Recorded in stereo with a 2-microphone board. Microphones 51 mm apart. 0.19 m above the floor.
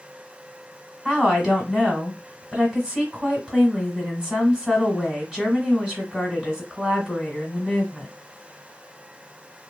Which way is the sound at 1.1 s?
10° right (ahead or behind).